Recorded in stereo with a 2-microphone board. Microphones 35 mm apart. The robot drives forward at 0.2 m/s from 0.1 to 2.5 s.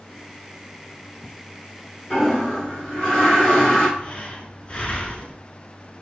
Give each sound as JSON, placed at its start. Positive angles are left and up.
{"t": 2.1, "sound": "a toilet flushing", "side_deg": 25, "distance_m": 1.4}
{"t": 4.0, "sound": "breathing", "side_deg": 30, "distance_m": 0.5}